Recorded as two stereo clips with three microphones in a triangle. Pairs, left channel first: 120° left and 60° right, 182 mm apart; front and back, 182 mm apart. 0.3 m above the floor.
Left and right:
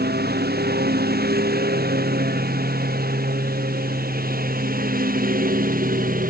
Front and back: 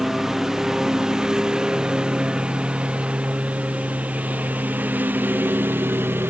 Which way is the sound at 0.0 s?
90° right.